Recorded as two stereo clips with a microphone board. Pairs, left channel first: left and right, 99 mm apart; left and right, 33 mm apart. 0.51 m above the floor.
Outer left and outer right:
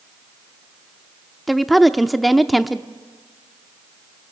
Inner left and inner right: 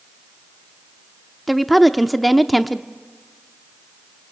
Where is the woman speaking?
Centre (ahead or behind), 0.7 m.